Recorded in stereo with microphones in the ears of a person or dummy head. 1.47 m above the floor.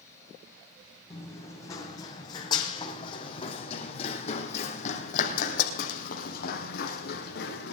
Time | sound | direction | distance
1.1 | running footsteps | 20° left (ahead or behind) | 4 m